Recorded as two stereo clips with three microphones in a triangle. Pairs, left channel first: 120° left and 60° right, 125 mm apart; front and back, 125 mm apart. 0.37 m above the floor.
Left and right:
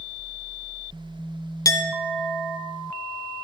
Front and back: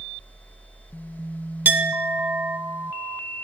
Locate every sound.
1.6 s a clink: 125° left, 0.6 m